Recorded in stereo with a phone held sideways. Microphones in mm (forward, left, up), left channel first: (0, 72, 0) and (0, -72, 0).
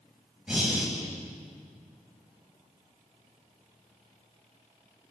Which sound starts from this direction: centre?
Breathing, at 0.5 s.